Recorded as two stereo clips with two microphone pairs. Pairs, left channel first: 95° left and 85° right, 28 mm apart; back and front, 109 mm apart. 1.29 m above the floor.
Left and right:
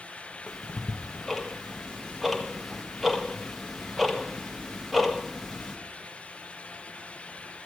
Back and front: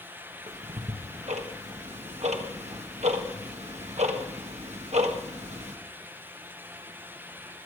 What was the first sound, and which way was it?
Ticking, straight ahead.